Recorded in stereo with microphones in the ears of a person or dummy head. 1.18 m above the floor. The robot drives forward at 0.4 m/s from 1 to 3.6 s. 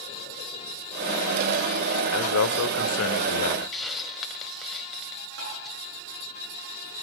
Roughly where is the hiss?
Centre.